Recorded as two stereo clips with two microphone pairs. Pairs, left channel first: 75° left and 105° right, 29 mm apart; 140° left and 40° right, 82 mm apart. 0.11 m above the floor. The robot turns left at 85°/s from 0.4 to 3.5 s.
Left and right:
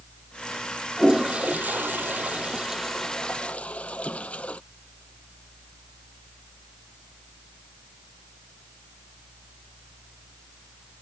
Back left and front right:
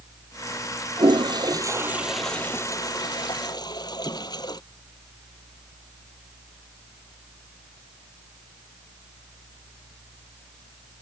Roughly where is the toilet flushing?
Ahead right.